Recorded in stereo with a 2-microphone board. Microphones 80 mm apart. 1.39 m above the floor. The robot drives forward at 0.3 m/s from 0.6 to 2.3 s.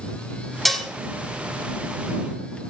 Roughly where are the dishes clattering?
Centre.